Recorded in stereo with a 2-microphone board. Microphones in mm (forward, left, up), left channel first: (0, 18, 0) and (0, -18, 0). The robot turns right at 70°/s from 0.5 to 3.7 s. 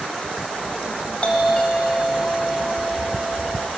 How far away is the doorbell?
About 1.9 m.